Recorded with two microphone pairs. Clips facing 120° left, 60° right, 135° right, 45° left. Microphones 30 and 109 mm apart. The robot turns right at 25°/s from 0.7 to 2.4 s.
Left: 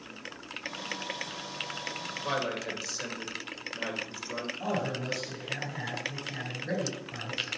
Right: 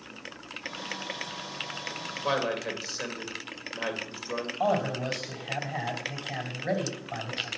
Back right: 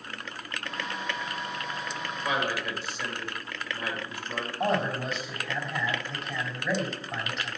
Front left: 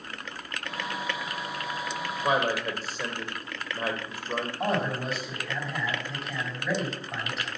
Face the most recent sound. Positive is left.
turn(degrees=-40)